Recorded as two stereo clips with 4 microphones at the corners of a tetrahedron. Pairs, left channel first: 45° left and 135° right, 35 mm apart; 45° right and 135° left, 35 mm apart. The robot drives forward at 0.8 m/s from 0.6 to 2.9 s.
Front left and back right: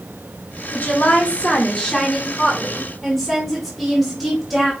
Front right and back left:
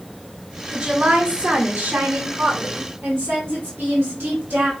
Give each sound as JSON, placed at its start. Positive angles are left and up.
{"t": 0.7, "sound": "a woman speaking", "azimuth_deg": 65, "distance_m": 1.3}